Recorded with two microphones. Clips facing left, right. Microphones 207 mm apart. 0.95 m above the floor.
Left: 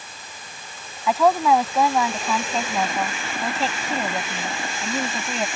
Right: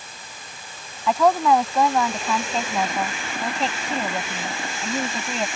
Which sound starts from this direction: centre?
A woman speaking, at 1.1 s.